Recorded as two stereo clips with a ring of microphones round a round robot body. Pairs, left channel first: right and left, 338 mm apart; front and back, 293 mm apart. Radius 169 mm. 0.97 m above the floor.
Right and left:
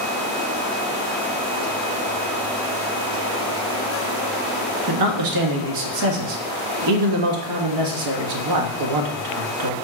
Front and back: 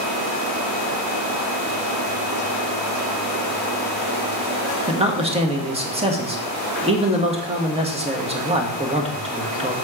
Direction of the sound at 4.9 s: 110° left.